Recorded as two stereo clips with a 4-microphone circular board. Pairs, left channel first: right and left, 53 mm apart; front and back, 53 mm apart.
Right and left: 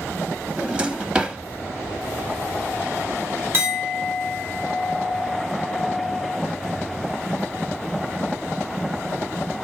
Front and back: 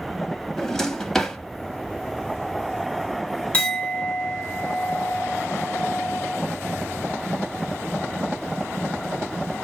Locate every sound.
0.6 s a drawer: 65° left, 0.6 m
3.5 s a clink: 60° left, 1.4 m